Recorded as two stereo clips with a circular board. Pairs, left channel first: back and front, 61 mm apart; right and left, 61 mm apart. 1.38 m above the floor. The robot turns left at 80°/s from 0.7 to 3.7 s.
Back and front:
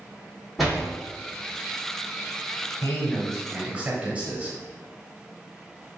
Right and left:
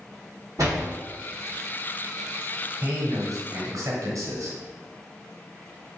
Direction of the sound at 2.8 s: 135° left.